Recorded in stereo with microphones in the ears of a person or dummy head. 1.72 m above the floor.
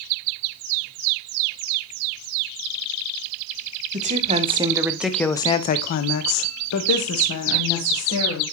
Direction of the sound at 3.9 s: 40° right (ahead or behind).